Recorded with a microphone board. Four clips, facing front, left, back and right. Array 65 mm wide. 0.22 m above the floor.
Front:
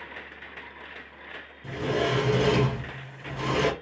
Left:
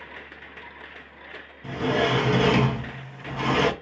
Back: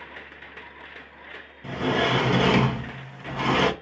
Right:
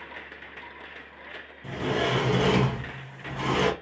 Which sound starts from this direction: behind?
A sliding door, at 1.6 s.